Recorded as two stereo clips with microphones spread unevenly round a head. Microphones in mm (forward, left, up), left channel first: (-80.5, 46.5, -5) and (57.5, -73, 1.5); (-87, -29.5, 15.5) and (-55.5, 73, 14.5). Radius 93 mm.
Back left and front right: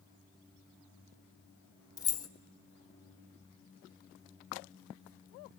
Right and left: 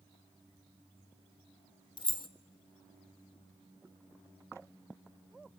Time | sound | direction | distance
2.0 | keys jangling | 150° right | 0.9 m